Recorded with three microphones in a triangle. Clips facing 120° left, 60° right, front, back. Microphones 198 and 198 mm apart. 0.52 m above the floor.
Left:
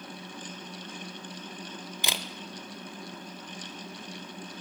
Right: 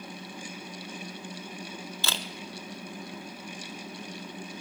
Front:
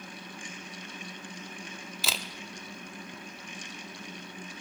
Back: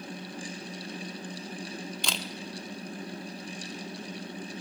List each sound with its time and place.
2.0 s a camera shutter: 80° left, 0.5 m